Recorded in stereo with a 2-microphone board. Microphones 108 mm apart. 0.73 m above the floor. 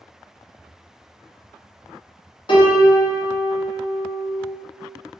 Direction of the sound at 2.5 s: 50° left (ahead or behind).